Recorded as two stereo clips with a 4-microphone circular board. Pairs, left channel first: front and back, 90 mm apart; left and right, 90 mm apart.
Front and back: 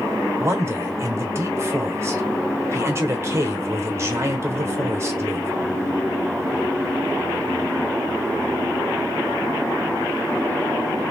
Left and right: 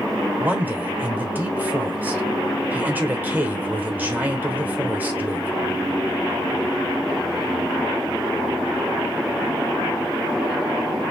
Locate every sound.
0.4 s a man speaking: 150° right, 1.1 m